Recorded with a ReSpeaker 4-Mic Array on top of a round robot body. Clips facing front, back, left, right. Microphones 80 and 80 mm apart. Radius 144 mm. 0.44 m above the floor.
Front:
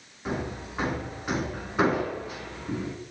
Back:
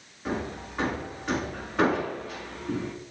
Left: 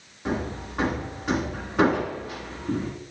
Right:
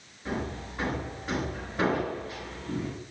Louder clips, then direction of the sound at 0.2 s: Even, left 4 dB; 80° left.